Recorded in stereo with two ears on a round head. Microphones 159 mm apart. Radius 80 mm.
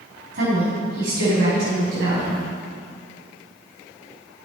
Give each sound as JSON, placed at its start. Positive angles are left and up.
{"t": 0.3, "sound": "a woman speaking", "side_deg": -60, "distance_m": 3.0}